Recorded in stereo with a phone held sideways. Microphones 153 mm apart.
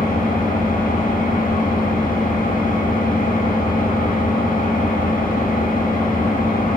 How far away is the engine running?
About 0.9 m.